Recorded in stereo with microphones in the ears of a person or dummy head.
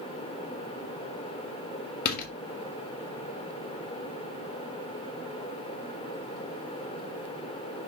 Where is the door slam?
50° left (ahead or behind), 1.2 m.